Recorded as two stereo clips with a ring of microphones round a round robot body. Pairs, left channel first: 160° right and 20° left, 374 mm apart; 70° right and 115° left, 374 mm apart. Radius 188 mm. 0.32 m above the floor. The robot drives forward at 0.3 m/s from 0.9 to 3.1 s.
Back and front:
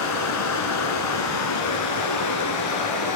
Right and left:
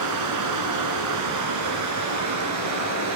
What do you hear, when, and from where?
0.0 s running water: 155° left, 2 m; by 3.2 s 160° left, 3 m